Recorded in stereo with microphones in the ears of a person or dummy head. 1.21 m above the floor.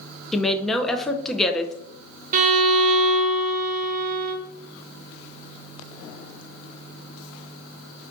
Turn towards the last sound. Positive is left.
turn(degrees=-40)  # may be behind; listen again after turning